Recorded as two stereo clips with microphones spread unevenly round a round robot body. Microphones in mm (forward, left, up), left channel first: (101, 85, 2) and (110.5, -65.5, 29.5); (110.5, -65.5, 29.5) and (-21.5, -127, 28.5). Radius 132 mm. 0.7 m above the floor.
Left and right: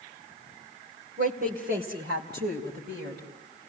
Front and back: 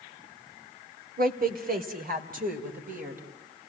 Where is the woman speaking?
145° right, 2 m; by 3.2 s 130° right, 4 m.